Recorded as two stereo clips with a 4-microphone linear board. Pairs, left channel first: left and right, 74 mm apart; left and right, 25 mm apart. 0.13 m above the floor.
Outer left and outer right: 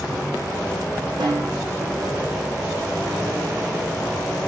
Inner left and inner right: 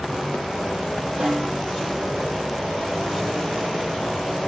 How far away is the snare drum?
About 5 m.